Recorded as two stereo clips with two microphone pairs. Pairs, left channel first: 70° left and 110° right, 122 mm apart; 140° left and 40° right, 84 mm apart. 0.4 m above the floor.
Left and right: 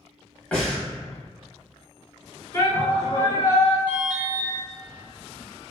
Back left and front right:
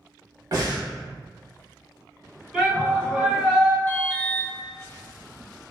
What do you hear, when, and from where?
0.5 s breathing: 5° right, 1.4 m
2.5 s a shout: 25° left, 1.7 m
3.9 s an alarm: straight behind, 0.8 m